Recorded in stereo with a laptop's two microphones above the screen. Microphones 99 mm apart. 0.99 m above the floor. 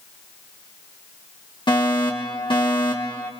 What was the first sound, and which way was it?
A fire alarm, 55° left (ahead or behind).